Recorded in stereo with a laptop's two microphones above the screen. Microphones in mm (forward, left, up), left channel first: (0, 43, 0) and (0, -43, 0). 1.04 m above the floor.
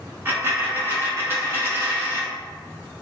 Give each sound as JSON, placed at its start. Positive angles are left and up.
{"t": 0.2, "sound": "a dropped coin", "side_deg": -30, "distance_m": 1.0}